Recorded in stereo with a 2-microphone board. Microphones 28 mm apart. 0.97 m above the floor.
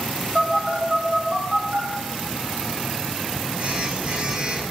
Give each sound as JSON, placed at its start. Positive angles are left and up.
{"t": 0.3, "sound": "a phone buzzing", "side_deg": -50, "distance_m": 1.1}